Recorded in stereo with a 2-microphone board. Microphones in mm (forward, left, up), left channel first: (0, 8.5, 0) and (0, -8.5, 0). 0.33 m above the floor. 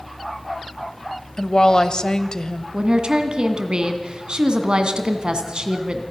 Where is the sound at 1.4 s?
50° left (ahead or behind), 1.2 m.